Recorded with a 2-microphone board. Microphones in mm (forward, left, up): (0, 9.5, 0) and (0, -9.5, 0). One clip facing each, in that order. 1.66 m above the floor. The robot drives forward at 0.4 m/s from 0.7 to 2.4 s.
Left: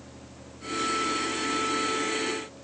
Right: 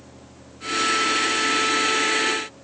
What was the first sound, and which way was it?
Only background noise.